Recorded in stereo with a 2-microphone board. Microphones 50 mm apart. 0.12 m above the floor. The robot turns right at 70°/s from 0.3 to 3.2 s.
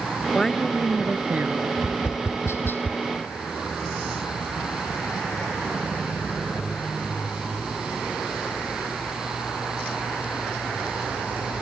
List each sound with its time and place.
0.3 s a woman speaking: 160° left; by 1.7 s 105° right
1.8 s tapping: 60° left (ahead or behind); by 3.0 s 30° left (ahead or behind)